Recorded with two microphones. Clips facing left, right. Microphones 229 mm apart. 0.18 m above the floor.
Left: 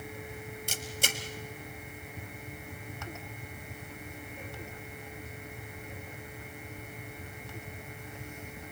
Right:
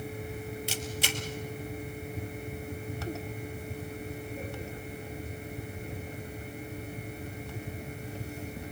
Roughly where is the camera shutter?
Left.